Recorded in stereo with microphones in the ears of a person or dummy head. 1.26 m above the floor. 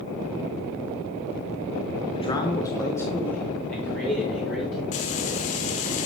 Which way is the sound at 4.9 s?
40° left (ahead or behind).